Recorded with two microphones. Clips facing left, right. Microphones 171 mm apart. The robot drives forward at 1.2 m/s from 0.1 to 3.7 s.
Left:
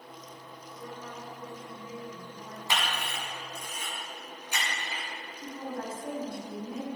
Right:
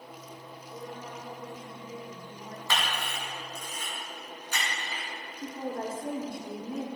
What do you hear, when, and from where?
0.7 s a woman speaking: 40° right (ahead or behind), 2.5 m; by 2.6 s 20° right (ahead or behind), 4.5 m
2.7 s a camera shutter: 20° left (ahead or behind), 3.5 m; by 5.1 s 15° left (ahead or behind), 5 m
5.4 s a woman speaking: 50° right (ahead or behind), 1.7 m